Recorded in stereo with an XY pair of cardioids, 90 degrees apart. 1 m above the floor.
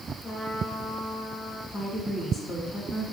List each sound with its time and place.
0.2 s a trumpet: 50° left, 6.5 m
1.7 s a woman speaking: 65° left, 8.5 m